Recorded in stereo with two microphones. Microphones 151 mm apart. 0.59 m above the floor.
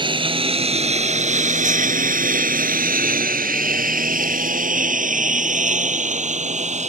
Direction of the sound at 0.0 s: 35° right (ahead or behind).